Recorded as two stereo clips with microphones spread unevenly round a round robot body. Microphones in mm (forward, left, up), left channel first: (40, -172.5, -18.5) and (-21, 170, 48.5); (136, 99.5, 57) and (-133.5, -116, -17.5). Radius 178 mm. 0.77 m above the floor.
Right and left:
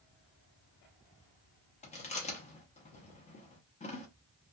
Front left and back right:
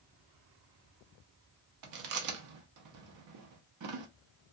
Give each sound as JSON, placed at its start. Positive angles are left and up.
{"t": 1.8, "sound": "chewing", "azimuth_deg": -140, "distance_m": 0.7}